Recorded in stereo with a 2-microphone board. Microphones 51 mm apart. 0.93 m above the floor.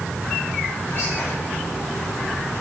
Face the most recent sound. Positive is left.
turn(degrees=55)  # may be behind; listen again after turning